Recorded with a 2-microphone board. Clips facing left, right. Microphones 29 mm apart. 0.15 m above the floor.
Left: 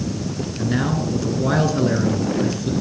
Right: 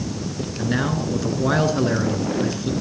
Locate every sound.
0.6 s a man speaking: 10° right (ahead or behind), 1.6 m